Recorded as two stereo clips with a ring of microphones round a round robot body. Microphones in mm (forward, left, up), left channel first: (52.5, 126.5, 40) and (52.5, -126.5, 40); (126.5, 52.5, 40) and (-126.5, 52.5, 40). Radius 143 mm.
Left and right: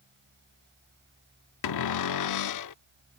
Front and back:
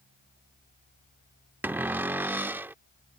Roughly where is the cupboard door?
Left.